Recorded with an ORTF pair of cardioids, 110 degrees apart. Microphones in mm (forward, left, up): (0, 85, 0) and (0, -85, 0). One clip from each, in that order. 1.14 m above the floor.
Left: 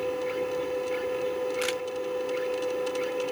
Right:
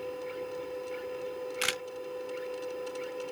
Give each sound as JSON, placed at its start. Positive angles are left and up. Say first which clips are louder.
{"t": 0.0, "sound": "a machine running", "louder": "left 8 dB", "azimuth_deg": 50}
{"t": 1.6, "sound": "a camera shutter", "louder": "left 2 dB", "azimuth_deg": -15}